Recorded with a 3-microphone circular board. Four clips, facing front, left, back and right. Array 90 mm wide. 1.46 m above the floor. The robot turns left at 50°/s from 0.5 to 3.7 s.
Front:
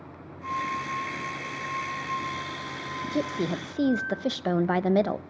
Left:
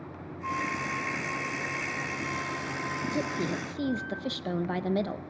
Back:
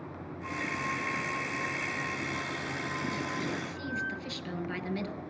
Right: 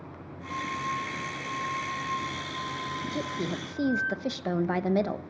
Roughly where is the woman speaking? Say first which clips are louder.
Left 2 dB, front 6 dB; ahead.